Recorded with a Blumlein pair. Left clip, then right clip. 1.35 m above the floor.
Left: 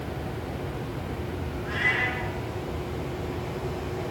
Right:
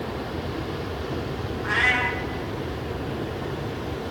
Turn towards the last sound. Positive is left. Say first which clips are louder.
# right 4 dB
turn(degrees=-45)